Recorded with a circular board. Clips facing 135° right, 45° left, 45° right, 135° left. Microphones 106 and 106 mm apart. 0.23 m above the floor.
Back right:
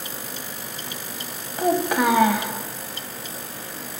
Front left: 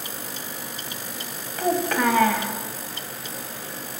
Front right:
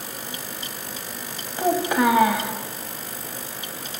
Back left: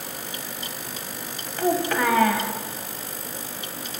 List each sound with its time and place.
1.6 s a child speaking: 90° right, 0.6 m